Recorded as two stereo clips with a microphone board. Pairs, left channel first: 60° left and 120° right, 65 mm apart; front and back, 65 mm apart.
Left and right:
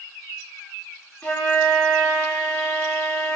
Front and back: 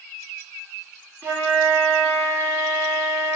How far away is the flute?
About 1.0 m.